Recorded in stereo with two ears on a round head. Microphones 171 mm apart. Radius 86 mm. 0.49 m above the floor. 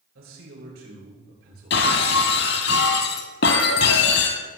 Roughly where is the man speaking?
Right.